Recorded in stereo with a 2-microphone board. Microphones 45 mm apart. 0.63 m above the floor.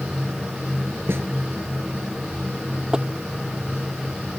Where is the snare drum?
60° right (ahead or behind).